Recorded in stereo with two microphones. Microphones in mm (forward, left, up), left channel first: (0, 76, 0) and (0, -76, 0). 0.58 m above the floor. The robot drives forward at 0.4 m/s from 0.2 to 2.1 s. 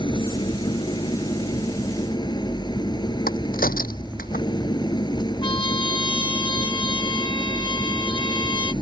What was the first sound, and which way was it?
An engine running, 30° left (ahead or behind).